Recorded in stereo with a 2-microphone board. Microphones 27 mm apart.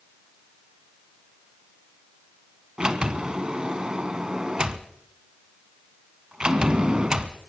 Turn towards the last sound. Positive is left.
turn(degrees=-30)  # may be behind; listen again after turning